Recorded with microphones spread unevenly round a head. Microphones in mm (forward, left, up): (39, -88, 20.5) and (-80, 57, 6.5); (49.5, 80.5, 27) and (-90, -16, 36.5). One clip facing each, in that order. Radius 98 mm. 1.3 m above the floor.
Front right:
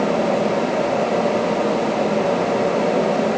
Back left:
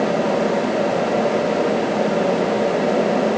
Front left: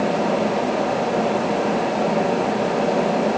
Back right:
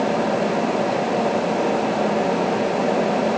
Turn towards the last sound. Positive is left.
No sound to turn to.